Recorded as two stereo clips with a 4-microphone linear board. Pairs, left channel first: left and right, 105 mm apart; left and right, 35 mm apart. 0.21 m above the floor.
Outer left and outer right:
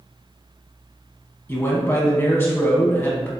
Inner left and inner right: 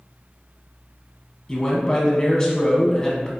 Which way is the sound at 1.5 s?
20° left (ahead or behind).